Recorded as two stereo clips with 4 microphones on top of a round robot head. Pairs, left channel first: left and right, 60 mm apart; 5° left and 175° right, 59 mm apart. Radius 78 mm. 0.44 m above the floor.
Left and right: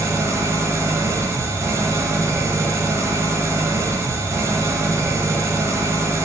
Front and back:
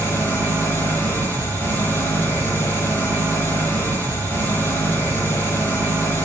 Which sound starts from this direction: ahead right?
An engine running, at 0.0 s.